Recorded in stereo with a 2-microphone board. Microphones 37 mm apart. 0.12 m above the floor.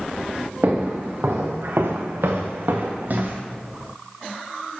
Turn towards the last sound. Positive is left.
turn(degrees=-45)  # may be behind; listen again after turning